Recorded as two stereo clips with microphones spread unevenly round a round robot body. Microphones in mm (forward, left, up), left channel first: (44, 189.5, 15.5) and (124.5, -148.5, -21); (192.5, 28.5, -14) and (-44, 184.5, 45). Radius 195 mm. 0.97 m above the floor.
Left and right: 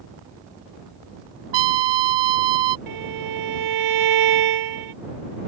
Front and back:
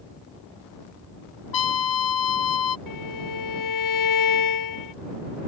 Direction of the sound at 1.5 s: 75° right.